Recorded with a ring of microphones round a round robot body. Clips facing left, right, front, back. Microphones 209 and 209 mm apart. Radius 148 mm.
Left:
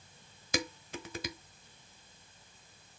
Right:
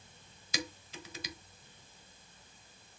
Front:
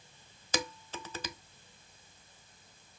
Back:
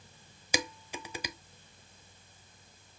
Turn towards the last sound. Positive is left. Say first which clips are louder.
# left 5 dB, back 1 dB
turn(degrees=105)